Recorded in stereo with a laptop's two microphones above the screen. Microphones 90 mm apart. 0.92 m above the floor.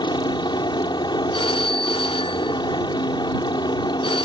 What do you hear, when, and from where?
0.0 s a helicopter: 60° left (ahead or behind)
1.3 s a phone ringing: 75° left (ahead or behind)